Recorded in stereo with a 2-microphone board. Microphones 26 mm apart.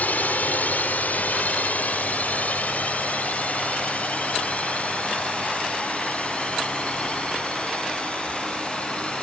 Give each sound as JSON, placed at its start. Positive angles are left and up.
{"t": 0.0, "sound": "a drone", "side_deg": 75}